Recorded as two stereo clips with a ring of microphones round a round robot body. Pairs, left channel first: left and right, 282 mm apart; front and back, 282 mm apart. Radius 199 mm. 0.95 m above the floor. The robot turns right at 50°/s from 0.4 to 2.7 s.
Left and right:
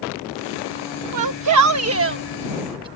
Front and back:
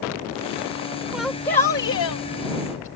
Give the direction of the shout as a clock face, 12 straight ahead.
3 o'clock.